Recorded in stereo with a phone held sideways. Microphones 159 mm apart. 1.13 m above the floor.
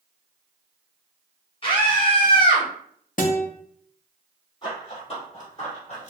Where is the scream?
35° left (ahead or behind), 1.2 m.